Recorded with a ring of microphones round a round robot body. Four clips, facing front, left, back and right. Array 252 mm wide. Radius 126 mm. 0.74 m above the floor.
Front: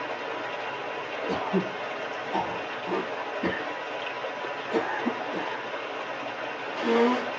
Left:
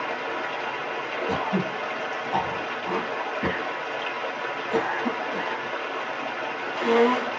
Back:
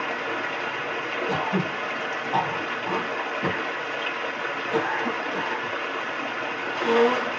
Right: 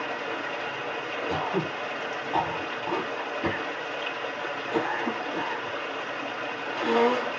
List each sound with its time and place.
0.0 s running water: 155° left, 1.2 m
1.3 s throat clearing: 115° left, 1.6 m